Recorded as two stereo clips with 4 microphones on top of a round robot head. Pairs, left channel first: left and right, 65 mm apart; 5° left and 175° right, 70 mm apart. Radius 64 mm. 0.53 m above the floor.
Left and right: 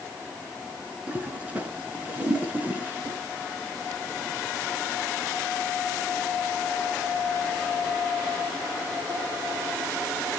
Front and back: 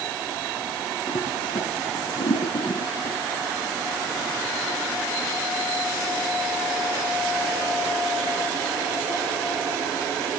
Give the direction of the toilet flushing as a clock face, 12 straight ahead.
1 o'clock.